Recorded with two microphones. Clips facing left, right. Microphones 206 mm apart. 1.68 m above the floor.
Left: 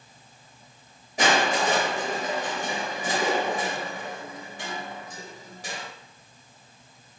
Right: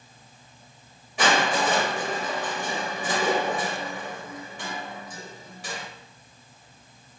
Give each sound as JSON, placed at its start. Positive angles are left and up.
{"t": 1.2, "sound": "crushing", "side_deg": 40, "distance_m": 1.8}